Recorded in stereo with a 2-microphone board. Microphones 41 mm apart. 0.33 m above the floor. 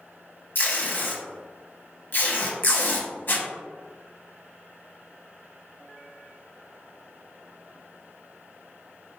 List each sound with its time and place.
0.6 s tape being pulled: 55° left (ahead or behind), 0.7 m